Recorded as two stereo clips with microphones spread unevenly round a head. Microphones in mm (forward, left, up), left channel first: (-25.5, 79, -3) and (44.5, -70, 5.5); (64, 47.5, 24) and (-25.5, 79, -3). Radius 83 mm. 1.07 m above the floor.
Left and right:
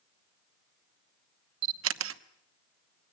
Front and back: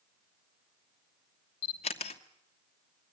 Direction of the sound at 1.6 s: 70° right.